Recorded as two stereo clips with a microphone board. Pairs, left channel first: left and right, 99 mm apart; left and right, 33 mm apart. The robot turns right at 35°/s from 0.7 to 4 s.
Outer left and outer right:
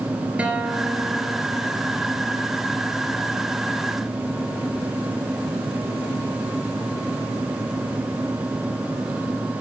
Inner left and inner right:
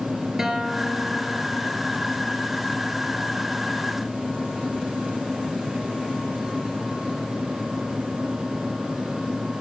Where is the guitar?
165° right, 2.5 m; by 1.7 s 130° right, 2.5 m.